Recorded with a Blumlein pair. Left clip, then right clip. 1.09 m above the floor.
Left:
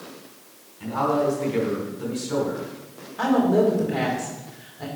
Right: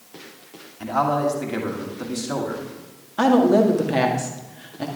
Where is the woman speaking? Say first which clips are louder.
Right 4 dB; 55° right, 1.9 m.